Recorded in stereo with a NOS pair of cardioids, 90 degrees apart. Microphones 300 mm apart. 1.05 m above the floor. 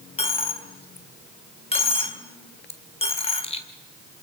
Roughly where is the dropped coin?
Ahead.